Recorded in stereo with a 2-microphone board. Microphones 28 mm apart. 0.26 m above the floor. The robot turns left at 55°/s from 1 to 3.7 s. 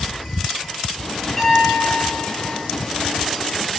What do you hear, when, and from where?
1.4 s a piano: 5° left, 4 m; by 2.6 s 65° right, 4 m